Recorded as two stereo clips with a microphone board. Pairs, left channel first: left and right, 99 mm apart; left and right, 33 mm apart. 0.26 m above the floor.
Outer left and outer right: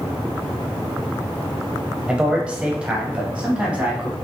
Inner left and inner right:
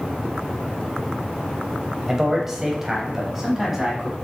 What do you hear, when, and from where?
2.1 s a man speaking: 10° right (ahead or behind), 0.9 m